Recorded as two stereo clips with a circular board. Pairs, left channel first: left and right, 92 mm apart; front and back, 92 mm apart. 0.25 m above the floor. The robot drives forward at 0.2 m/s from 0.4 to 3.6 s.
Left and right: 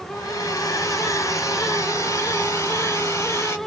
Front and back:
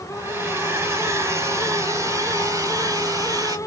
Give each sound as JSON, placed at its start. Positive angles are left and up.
{"t": 0.1, "sound": "a hair dryer", "azimuth_deg": 125, "distance_m": 1.8}